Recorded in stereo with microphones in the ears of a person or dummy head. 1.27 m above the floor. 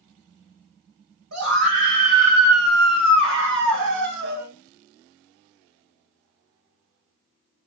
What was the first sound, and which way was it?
A scream, 80° right.